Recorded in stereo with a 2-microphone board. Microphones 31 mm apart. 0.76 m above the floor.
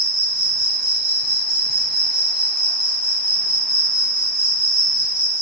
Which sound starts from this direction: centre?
An insect, at 0.0 s.